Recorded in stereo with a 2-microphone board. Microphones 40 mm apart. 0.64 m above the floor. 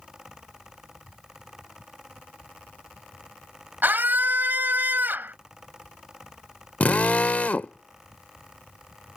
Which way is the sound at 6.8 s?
40° left (ahead or behind).